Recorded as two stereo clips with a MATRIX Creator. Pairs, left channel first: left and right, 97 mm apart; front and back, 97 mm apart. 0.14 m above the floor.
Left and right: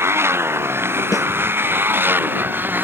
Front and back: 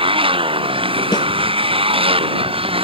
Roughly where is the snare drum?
Ahead left.